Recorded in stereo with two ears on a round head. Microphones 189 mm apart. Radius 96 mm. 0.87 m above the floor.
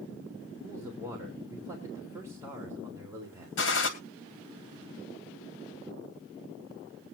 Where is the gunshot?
65° left (ahead or behind), 2 m.